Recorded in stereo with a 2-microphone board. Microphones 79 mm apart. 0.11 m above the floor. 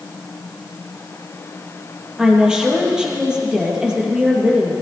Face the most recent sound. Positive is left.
turn(degrees=-10)  # may be behind; listen again after turning